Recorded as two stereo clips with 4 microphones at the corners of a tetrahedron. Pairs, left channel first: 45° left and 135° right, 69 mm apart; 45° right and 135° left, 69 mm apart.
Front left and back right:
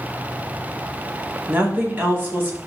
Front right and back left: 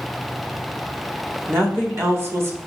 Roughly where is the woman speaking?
Behind.